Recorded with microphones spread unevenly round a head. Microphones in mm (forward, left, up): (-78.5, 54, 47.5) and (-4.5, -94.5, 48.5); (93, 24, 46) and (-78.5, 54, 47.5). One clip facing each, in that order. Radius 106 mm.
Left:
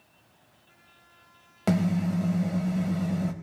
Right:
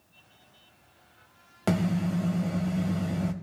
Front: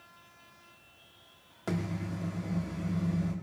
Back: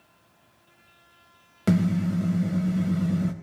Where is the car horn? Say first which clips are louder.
Left 1 dB, back 12 dB; 155° right, 4 m.